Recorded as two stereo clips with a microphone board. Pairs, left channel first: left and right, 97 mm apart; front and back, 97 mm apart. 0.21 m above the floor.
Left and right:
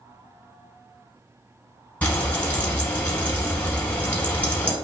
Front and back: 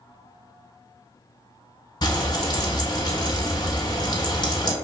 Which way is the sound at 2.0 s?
20° left.